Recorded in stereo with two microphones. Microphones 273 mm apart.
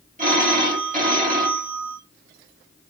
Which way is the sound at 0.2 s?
30° right (ahead or behind).